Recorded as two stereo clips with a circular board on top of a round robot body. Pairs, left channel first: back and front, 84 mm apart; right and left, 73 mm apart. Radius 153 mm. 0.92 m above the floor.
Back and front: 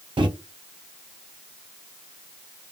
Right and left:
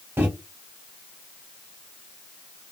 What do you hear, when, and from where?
0.2 s a microwave: 25° left, 0.7 m